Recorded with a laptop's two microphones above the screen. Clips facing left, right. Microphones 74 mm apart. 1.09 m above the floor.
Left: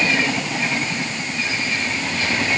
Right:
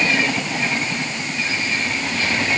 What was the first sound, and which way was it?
Only background noise.